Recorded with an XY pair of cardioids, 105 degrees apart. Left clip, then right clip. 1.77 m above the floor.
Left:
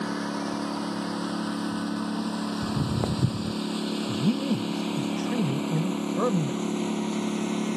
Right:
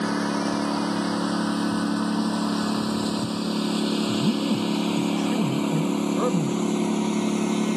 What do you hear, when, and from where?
0.0 s a lawn mower: 40° right; by 7.8 s 35° right
2.6 s footsteps: 65° left
4.1 s a man speaking: 5° right